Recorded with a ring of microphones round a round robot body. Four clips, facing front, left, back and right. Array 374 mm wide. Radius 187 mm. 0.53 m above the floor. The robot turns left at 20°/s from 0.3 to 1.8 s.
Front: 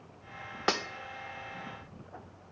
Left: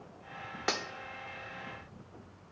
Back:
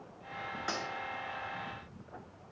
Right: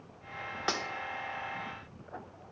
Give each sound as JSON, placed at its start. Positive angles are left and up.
{"t": 0.7, "sound": "cutlery clinking", "azimuth_deg": 5, "distance_m": 0.7}